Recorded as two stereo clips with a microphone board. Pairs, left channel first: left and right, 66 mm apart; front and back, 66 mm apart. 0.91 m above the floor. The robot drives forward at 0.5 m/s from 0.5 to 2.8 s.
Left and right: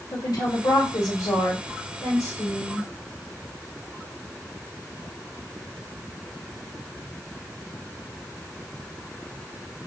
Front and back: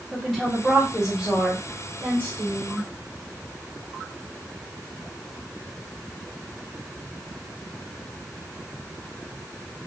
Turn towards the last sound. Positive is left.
turn(degrees=130)